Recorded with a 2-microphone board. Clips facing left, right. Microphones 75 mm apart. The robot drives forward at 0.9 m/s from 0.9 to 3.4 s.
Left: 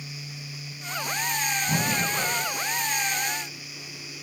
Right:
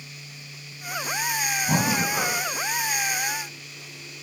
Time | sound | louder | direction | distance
1.7 | breathing | right 5 dB | 30° right (ahead or behind) | 1.0 m